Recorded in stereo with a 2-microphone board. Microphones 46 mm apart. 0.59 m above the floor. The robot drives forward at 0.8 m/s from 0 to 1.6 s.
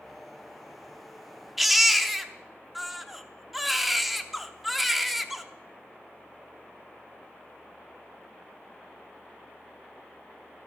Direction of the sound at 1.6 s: Centre (ahead or behind).